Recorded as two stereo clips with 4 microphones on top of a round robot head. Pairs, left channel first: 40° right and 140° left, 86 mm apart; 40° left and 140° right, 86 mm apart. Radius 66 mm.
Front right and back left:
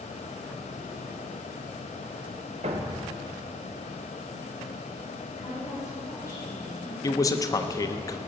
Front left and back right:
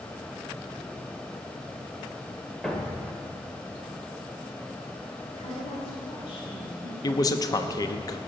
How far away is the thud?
About 1.3 m.